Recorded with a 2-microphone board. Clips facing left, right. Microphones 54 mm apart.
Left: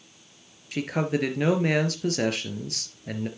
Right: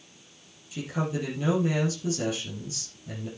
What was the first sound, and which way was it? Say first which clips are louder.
A man speaking: left 4 dB; 70° left (ahead or behind).